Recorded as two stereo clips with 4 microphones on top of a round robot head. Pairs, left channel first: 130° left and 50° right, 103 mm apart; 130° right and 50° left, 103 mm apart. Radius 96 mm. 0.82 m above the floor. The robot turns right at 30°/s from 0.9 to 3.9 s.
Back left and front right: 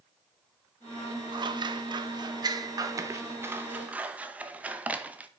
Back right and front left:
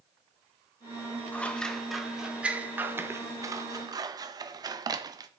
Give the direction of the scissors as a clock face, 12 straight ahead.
2 o'clock.